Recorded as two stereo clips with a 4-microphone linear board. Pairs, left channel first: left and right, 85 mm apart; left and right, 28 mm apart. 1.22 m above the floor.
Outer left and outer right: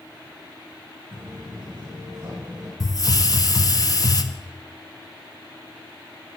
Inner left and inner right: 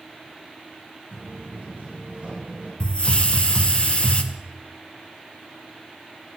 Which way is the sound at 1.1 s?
60° right (ahead or behind).